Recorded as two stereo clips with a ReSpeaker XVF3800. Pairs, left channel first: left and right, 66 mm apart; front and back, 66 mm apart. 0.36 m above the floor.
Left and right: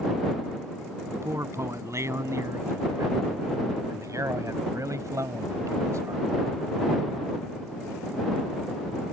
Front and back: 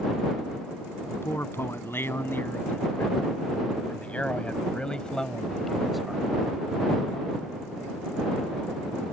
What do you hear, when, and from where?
1.1 s a man speaking: 50° right; by 6.3 s 100° right